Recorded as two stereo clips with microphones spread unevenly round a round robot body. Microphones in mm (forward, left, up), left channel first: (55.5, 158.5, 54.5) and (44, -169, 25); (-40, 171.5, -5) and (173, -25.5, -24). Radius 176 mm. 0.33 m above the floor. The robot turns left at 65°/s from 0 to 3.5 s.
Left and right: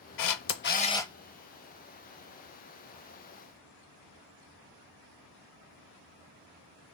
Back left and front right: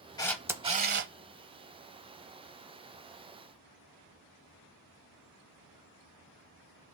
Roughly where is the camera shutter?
Ahead left.